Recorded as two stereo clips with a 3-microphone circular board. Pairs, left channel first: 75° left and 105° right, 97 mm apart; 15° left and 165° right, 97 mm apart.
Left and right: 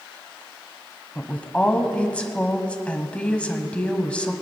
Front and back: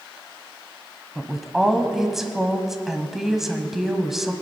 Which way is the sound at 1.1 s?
120° left.